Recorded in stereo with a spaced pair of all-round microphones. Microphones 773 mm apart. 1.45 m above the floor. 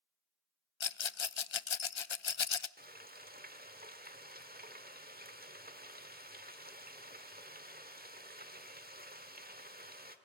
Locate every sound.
0.8 s a rattle: 40° left (ahead or behind), 0.6 m
2.8 s frying: 10° right (ahead or behind), 1.4 m